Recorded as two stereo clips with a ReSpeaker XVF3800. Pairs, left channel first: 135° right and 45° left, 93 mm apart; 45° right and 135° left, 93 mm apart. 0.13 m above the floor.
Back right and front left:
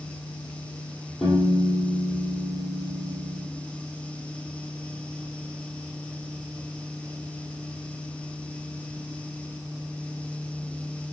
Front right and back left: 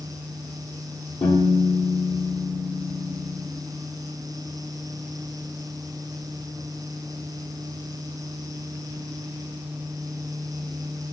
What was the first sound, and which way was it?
A piano, 45° right.